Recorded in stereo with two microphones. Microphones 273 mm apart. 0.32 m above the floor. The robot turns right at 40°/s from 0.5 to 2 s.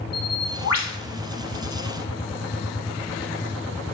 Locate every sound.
0.1 s a bird: 65° left (ahead or behind), 0.9 m; by 1.0 s 80° left, 0.9 m